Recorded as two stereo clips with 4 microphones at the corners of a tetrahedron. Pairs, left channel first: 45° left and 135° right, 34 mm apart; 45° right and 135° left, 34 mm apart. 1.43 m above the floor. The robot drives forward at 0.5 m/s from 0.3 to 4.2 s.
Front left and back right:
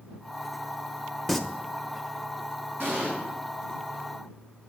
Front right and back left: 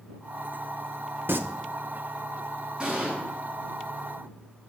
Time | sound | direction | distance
1.3 | singing | 130° left | 0.8 m
2.8 | an explosion | 160° right | 7 m